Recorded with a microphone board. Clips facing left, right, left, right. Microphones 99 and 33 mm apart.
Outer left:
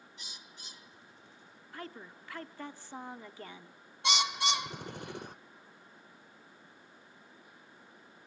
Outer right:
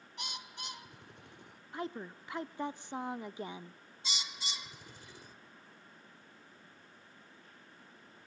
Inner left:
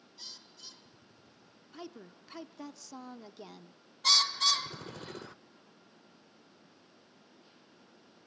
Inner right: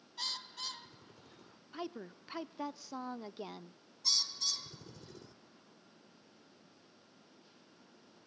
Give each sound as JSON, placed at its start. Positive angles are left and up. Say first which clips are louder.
{"t": 0.2, "sound": "a bird", "louder": "outer right 12 dB, inner right 10 dB", "side_deg": -65, "distance_m": 0.6}
{"t": 1.7, "sound": "a woman speaking", "louder": "outer right 5 dB, inner right 4 dB", "side_deg": -20, "distance_m": 0.7}
{"t": 4.0, "sound": "a bird", "louder": "outer left 15 dB, inner left 10 dB", "side_deg": 65, "distance_m": 0.6}